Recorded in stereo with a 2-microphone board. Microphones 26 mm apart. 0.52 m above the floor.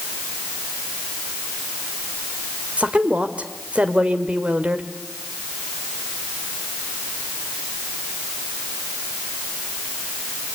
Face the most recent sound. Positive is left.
turn(degrees=-55)  # may be behind; listen again after turning